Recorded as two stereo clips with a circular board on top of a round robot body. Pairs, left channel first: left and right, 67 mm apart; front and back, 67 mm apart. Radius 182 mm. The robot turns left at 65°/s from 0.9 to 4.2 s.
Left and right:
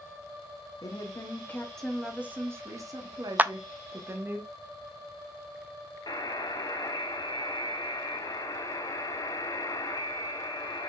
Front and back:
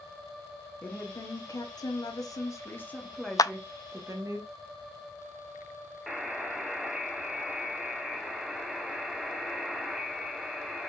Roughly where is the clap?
Ahead right.